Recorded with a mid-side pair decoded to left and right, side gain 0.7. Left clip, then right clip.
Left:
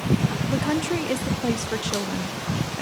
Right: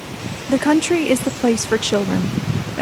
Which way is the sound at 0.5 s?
45° right.